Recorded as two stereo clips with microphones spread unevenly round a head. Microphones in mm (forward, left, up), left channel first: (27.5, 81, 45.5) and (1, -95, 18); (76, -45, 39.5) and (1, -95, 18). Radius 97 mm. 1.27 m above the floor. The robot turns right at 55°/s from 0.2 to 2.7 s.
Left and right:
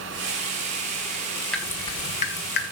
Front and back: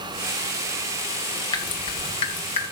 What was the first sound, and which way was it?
Dripping, straight ahead.